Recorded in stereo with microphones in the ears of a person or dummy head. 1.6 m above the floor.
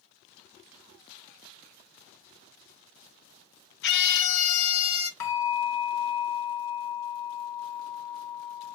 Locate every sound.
3.8 s a scream: 60° left (ahead or behind), 1.0 m; by 5.1 s 90° left, 1.7 m
5.2 s a bell: 75° left (ahead or behind), 2.5 m